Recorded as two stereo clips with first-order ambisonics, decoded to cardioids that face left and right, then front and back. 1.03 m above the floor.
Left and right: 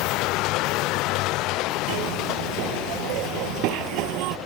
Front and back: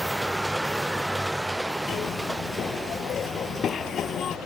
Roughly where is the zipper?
Ahead right.